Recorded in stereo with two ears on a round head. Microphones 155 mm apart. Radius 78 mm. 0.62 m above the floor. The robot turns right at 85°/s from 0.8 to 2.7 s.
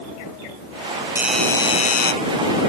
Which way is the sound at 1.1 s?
15° right.